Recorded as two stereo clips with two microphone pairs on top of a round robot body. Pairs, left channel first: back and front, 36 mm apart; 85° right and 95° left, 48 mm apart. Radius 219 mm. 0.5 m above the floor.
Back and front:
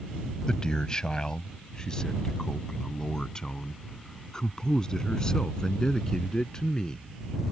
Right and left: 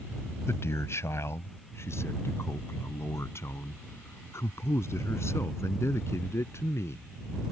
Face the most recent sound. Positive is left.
turn(degrees=-110)